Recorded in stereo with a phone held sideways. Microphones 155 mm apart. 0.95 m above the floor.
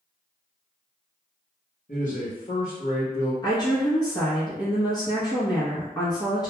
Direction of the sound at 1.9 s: 40° left (ahead or behind).